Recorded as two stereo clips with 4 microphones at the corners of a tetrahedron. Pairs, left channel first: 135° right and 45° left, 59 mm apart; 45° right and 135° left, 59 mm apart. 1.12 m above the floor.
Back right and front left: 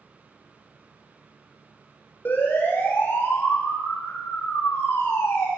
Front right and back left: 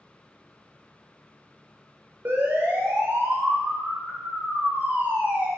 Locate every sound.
2.2 s a siren: straight behind, 5.5 m; by 5.5 s 170° right, 6.5 m